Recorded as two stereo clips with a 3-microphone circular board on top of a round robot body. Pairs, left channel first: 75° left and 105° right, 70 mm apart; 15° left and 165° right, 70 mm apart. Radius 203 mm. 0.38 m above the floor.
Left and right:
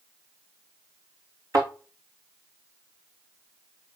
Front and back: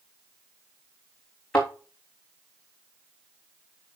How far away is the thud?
About 3 m.